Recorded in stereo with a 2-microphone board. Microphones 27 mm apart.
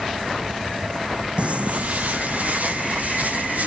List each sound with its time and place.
1.4 s footsteps: 50° right (ahead or behind), 0.6 m; by 3.7 s 70° right (ahead or behind), 3 m